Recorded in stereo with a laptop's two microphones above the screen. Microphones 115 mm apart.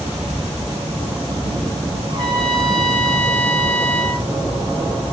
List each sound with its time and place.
2.1 s a trumpet: 40° right (ahead or behind), 1.3 m